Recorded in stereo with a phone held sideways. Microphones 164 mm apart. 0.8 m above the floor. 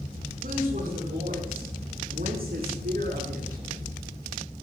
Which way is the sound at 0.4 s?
70° right (ahead or behind).